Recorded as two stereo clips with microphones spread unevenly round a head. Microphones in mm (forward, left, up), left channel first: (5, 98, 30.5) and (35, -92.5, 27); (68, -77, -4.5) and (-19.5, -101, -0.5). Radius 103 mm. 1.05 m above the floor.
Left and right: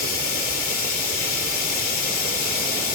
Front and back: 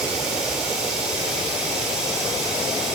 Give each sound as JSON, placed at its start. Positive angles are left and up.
{"t": 0.0, "sound": "running water", "azimuth_deg": 120, "distance_m": 3.0}